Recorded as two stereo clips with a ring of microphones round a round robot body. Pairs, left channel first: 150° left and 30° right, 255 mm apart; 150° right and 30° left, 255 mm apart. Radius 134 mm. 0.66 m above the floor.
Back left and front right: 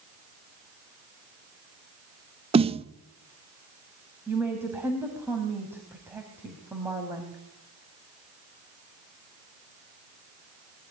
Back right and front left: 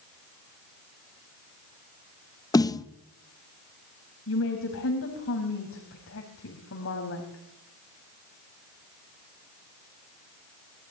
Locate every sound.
2.5 s a snare drum: 85° right, 0.8 m
4.3 s a woman speaking: 110° right, 4 m